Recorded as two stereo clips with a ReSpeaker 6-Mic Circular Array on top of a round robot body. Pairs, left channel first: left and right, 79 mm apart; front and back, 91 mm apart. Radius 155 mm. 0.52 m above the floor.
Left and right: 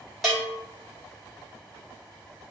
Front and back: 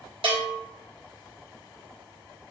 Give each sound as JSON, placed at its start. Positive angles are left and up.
{"t": 0.2, "sound": "a bell", "azimuth_deg": 180, "distance_m": 1.4}